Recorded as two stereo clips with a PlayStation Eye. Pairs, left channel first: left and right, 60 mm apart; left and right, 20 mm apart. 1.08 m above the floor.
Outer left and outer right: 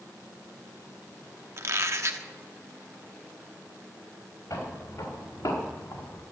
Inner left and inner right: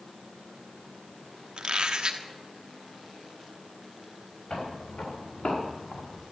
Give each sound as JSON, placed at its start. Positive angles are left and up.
{"t": 1.6, "sound": "a squeak", "side_deg": -50, "distance_m": 1.1}
{"t": 4.5, "sound": "footsteps", "side_deg": 65, "distance_m": 6.5}